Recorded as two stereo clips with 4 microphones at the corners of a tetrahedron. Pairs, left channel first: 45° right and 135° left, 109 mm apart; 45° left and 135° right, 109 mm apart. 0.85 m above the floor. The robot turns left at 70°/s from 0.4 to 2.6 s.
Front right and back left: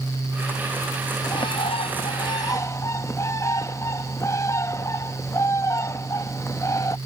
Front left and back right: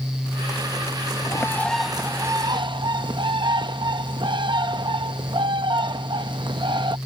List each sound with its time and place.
1.2 s a bird: 5° right; by 7.0 s 100° right